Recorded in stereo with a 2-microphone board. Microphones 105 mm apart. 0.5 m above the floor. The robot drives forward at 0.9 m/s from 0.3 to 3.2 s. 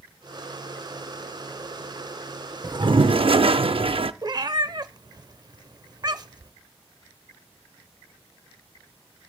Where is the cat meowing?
40° right (ahead or behind), 0.6 m.